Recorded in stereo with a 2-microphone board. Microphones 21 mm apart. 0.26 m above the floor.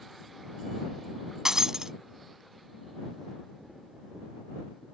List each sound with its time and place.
1.4 s breaking glass: 35° right (ahead or behind)